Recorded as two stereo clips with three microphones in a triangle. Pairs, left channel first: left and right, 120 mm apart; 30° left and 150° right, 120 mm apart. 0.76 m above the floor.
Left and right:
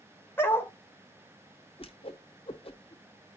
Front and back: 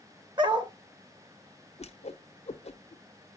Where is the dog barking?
160° left, 0.9 m.